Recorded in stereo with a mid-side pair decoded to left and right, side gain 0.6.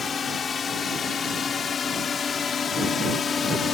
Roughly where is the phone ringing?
I don't hear a phone ringing.